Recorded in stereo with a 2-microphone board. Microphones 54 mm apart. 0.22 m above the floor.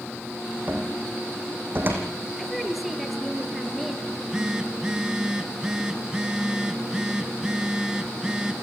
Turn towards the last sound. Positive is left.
turn(degrees=-15)  # may be behind; listen again after turning